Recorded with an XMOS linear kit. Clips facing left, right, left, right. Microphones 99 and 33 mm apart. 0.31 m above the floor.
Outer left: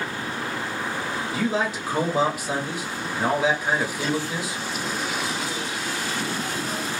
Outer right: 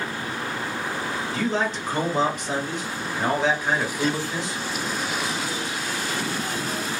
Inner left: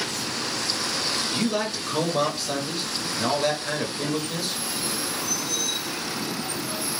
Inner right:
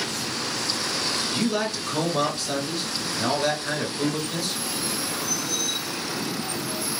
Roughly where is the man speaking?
Centre.